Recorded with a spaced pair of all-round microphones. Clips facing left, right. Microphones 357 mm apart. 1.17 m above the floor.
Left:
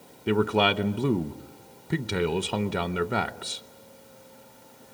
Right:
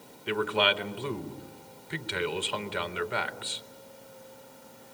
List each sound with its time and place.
0.3 s a man speaking: 55° left (ahead or behind), 0.8 m